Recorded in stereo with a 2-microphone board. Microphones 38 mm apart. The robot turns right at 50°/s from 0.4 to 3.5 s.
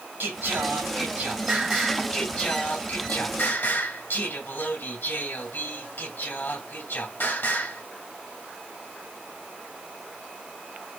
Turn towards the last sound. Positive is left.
turn(degrees=90)